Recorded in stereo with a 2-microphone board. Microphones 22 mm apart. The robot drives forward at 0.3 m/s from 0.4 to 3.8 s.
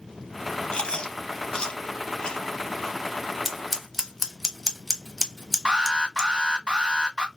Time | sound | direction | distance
0.7 | chewing | 45° left (ahead or behind) | 0.5 m
3.5 | scissors | 5° left (ahead or behind) | 0.8 m
5.7 | an alarm | 30° right (ahead or behind) | 1.1 m